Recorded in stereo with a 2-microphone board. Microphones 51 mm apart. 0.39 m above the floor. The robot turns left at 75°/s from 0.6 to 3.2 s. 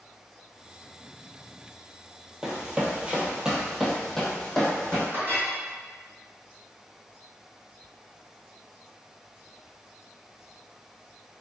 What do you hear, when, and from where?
2.4 s running footsteps: 10° right (ahead or behind), 0.6 m; by 5.0 s 15° left (ahead or behind), 1.2 m
5.1 s a clink: 55° right (ahead or behind), 1.5 m